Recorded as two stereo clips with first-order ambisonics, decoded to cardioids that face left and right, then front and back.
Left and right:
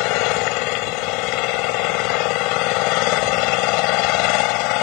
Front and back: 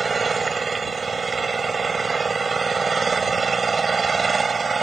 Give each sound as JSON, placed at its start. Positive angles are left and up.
{"t": 0.0, "sound": "an engine running", "azimuth_deg": 105}